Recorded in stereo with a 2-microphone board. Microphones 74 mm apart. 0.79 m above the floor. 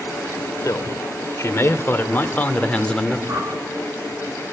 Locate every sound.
0.6 s a man speaking: 50° left (ahead or behind), 2.5 m; by 3.2 s 10° left (ahead or behind), 2 m
3.3 s a whoosh: 40° right (ahead or behind), 4.5 m